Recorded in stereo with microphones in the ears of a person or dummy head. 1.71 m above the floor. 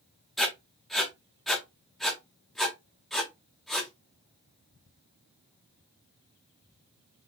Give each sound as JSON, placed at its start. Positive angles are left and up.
{"t": 0.4, "sound": "writing", "side_deg": 0, "distance_m": 1.1}